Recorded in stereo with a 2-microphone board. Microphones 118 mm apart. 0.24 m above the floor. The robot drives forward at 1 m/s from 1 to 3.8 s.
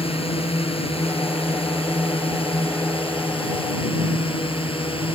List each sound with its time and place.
0.0 s a drone: 55° left (ahead or behind); by 5.2 s 50° left (ahead or behind)